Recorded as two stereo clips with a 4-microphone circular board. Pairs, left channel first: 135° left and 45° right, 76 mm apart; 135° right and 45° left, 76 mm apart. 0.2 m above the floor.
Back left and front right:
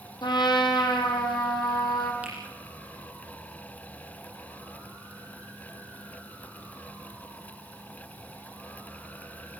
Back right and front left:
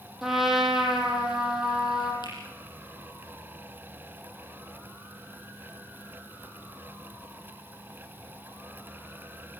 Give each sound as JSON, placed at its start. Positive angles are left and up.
{"t": 0.2, "sound": "a trumpet", "azimuth_deg": 130, "distance_m": 3.5}
{"t": 2.2, "sound": "a finger snap", "azimuth_deg": -115, "distance_m": 7.5}